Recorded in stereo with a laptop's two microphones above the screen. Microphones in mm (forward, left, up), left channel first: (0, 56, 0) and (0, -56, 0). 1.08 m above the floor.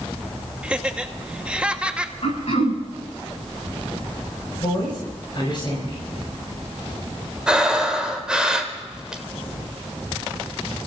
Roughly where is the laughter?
Centre.